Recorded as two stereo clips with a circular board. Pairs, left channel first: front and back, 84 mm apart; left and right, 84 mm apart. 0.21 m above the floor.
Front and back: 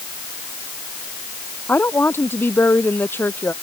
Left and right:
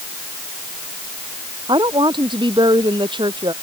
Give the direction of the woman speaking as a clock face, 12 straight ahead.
2 o'clock.